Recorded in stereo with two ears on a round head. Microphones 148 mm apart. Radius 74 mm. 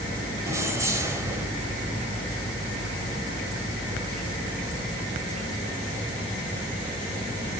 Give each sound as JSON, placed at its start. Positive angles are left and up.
{"t": 0.5, "sound": "keys jangling", "side_deg": -20, "distance_m": 1.5}